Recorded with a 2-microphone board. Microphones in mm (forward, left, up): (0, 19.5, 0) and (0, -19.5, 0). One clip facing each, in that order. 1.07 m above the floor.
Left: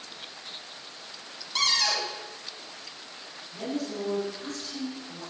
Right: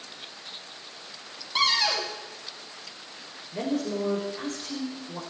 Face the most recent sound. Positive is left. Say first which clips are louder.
# right 4 dB
turn(degrees=-80)